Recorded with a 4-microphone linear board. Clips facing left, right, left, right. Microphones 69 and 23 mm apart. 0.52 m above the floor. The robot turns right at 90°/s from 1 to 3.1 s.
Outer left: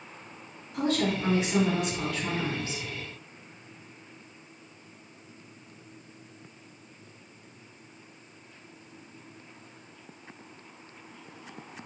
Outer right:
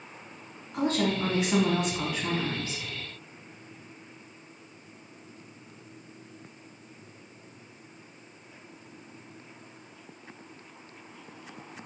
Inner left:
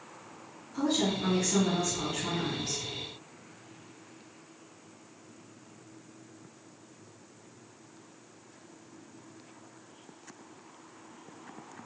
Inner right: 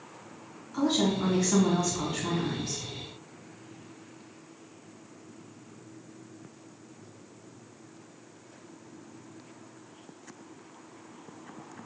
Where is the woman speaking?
125° right, 1.6 m; by 2.8 s 40° left, 1.6 m.